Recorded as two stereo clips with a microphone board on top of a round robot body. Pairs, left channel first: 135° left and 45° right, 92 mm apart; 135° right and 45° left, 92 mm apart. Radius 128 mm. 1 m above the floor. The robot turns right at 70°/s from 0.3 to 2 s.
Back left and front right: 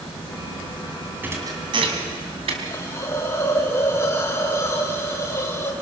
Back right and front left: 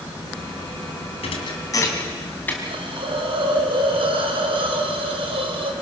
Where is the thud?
115° right, 2.5 m; by 2.5 s 65° right, 2.5 m.